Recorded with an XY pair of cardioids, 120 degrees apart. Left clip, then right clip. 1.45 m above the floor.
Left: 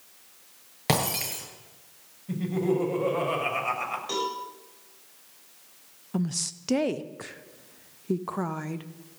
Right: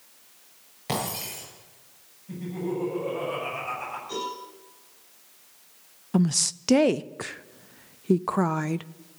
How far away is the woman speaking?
About 0.5 m.